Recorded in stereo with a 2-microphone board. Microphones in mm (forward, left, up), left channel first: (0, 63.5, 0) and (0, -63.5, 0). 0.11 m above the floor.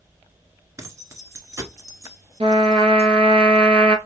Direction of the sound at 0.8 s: 25° right (ahead or behind).